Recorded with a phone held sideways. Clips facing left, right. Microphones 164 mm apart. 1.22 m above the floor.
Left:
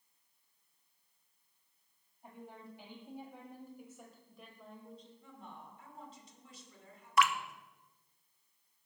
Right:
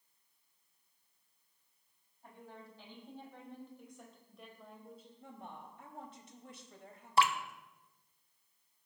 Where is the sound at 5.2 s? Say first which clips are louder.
Right 2 dB; 60° right (ahead or behind), 2.5 m.